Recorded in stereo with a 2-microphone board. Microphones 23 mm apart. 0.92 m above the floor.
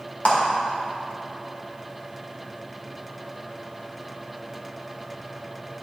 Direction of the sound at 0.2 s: 65° left (ahead or behind).